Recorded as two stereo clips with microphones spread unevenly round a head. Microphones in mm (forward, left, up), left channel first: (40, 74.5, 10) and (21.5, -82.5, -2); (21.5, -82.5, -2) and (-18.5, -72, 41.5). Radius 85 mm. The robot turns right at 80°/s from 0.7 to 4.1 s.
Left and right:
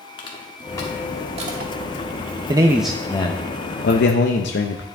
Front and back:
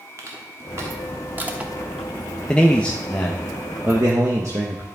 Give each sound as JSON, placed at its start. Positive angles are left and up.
{"t": 0.2, "sound": "crushing", "azimuth_deg": 150, "distance_m": 1.2}
{"t": 2.5, "sound": "a man speaking", "azimuth_deg": -40, "distance_m": 0.7}